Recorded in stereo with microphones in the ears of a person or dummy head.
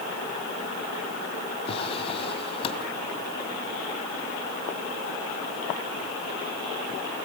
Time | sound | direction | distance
1.7 | a drawer | 35° left (ahead or behind) | 2 m